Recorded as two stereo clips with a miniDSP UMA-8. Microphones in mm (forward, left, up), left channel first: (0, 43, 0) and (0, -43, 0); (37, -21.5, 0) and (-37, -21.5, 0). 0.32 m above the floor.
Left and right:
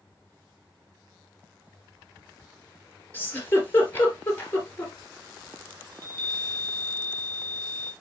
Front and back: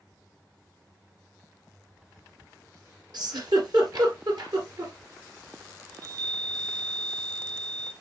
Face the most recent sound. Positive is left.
turn(degrees=150)